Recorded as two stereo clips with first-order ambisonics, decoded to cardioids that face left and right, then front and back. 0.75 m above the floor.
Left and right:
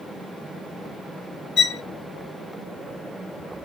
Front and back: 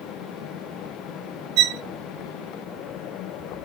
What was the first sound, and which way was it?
A violin, 150° left.